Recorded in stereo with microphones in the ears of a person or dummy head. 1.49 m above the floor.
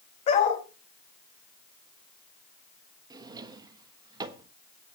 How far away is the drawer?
About 1.3 m.